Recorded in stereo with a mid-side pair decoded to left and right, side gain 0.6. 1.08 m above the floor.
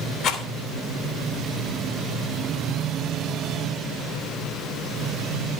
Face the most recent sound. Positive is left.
turn(degrees=60)